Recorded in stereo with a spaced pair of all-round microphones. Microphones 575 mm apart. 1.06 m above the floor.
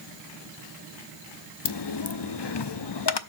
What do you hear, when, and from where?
1.6 s a dropped coin: 45° left (ahead or behind), 0.6 m